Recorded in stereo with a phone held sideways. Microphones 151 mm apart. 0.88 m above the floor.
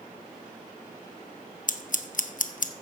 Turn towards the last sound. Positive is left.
turn(degrees=60)  # may be behind; listen again after turning